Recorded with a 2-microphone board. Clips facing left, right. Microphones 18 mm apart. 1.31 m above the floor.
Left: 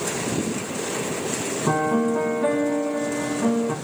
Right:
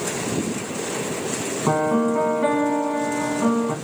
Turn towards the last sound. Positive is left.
turn(degrees=-15)  # may be behind; listen again after turning